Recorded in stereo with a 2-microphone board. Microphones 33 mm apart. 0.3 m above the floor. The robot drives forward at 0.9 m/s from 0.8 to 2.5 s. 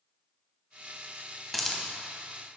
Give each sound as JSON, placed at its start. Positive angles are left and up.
{"t": 1.5, "sound": "a hiss", "side_deg": 0, "distance_m": 0.8}